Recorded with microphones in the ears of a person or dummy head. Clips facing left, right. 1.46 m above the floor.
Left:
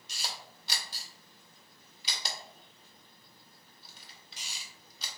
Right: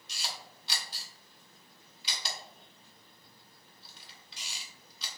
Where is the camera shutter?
45° left (ahead or behind), 0.7 m.